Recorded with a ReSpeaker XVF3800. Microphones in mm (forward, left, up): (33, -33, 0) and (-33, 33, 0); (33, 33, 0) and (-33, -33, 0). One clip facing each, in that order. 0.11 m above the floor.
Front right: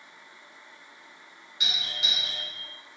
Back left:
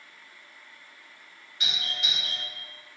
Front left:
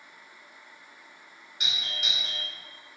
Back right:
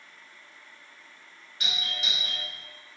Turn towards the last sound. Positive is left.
turn(degrees=0)